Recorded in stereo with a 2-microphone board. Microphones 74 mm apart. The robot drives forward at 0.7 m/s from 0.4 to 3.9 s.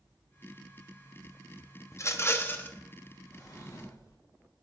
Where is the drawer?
50° left (ahead or behind), 1.9 m.